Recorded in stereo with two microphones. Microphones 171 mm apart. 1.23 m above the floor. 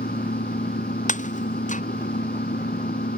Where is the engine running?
70° left (ahead or behind).